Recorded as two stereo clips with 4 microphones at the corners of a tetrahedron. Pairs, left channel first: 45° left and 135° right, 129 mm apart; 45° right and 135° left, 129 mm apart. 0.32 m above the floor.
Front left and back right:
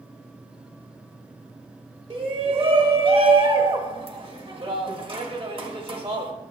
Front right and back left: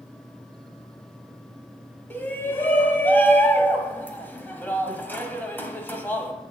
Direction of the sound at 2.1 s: 115° right.